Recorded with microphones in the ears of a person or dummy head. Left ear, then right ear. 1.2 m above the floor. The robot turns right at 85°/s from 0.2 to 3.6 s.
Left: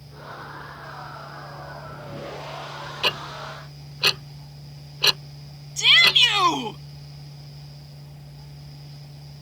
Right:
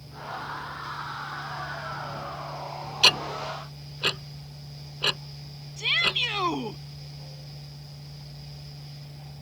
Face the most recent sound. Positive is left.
turn(degrees=50)  # may be behind; listen again after turning